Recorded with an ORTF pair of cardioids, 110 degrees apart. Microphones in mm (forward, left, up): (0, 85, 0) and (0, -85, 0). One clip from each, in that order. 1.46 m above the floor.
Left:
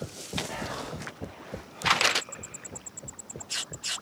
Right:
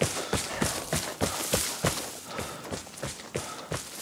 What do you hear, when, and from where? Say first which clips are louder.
0.5 s whispering: right 3 dB; 30° right, 1.5 m